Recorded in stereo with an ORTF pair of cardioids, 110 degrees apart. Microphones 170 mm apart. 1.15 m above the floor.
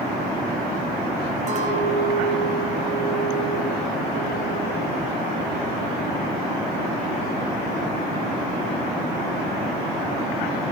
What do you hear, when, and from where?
1.5 s a clink: 45° right, 5 m